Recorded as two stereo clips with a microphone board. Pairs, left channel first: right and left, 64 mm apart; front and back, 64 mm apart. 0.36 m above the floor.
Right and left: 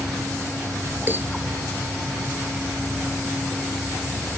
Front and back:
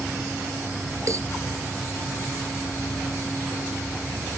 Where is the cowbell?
145° left.